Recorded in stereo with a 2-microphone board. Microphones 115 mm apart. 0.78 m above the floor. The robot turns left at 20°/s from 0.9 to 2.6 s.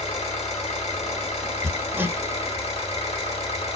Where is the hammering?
25° right (ahead or behind), 0.5 m; by 2.2 s 15° right (ahead or behind), 0.5 m.